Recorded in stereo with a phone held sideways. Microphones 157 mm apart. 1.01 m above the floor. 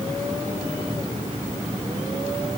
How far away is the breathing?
I don't hear breathing.